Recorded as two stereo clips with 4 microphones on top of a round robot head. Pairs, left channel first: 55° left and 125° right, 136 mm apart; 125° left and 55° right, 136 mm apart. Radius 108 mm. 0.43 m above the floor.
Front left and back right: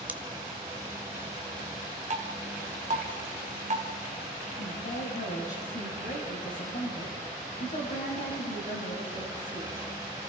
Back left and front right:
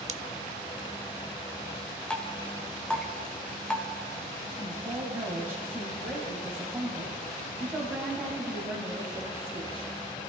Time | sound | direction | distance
0.1 | scissors | 50° right | 0.9 m
2.1 | dripping | 155° right | 1.9 m
4.6 | a woman speaking | 25° left | 3 m